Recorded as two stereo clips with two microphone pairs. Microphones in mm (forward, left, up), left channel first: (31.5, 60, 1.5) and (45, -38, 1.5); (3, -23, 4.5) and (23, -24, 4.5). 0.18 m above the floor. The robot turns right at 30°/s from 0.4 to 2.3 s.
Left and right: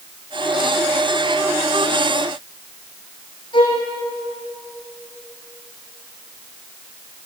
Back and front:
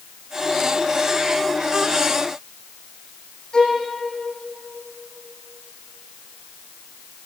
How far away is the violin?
About 6 m.